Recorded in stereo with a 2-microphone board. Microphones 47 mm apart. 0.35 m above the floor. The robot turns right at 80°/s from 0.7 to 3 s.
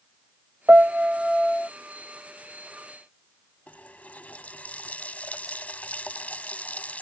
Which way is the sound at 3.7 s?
30° left (ahead or behind).